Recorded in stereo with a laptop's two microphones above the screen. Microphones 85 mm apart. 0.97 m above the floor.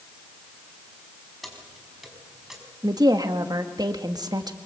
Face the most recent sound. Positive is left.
turn(degrees=-50)  # may be behind; listen again after turning